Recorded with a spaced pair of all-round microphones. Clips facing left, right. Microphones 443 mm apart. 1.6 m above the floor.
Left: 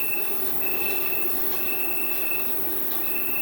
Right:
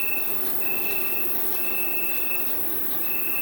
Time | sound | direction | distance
0.0 | an insect | 45° right (ahead or behind) | 1.1 m